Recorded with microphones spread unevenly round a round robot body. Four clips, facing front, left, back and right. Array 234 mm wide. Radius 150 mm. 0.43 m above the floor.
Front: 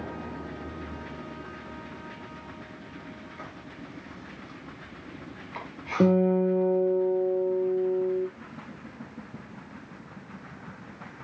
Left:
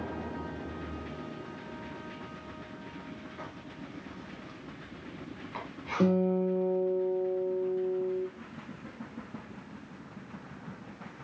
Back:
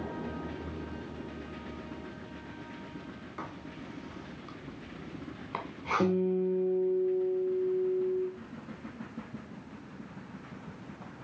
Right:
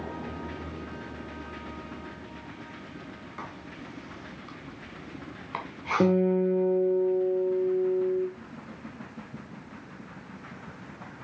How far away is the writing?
About 1.5 m.